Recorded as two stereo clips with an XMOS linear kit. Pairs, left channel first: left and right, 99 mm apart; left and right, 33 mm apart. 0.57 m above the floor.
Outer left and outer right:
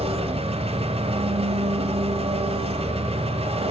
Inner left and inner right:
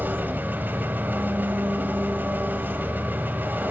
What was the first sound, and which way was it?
An engine running, 80° right.